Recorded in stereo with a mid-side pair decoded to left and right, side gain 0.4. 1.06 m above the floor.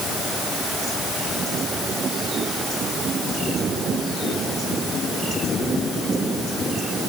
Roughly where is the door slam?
No door slam in this recording.